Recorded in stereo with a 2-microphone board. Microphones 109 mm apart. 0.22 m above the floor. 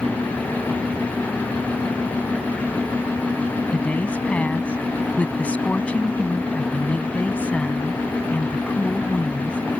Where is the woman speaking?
15° left (ahead or behind).